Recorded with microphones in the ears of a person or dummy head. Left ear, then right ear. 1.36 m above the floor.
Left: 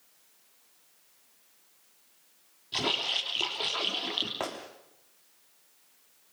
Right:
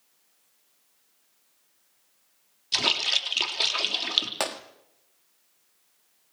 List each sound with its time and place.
2.7 s a splash: 70° right (ahead or behind), 3.5 m
4.4 s a gunshot: 65° right (ahead or behind), 1.4 m